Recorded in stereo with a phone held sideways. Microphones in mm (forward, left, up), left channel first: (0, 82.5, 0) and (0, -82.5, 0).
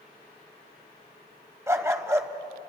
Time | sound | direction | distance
1.7 | a dog barking | 20° right (ahead or behind) | 1.4 m